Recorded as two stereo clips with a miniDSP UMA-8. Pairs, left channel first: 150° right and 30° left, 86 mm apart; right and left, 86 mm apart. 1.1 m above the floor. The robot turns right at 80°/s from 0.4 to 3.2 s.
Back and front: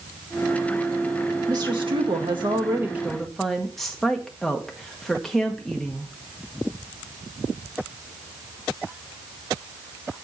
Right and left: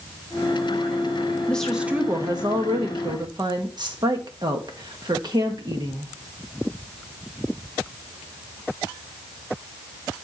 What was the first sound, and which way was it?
A woman speaking, 15° right.